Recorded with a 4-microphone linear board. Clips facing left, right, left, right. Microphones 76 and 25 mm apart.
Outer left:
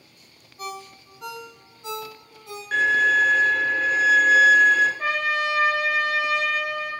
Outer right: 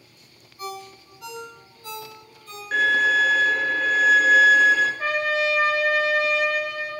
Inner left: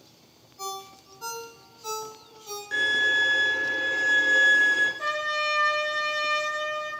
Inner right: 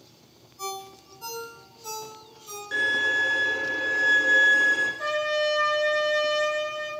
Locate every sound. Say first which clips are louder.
0.6 s a ringtone: outer right 1 dB, inner right 1 dB; 20° left (ahead or behind), 1.1 m
2.7 s a violin: even, inner left 1 dB; centre (ahead or behind), 0.7 m
5.0 s a trumpet: outer right 1 dB, inner right 2 dB; centre (ahead or behind), 0.9 m